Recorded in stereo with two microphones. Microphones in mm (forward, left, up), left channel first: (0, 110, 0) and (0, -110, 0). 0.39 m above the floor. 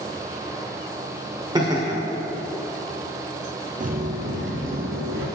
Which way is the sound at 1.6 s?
20° right (ahead or behind).